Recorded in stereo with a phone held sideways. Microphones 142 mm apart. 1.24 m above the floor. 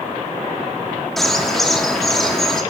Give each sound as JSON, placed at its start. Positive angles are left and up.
{"t": 1.2, "sound": "a bird", "side_deg": 0, "distance_m": 1.3}